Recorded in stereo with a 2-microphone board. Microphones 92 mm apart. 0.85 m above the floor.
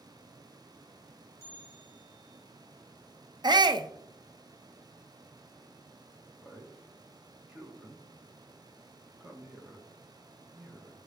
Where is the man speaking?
10° right (ahead or behind), 2.0 m.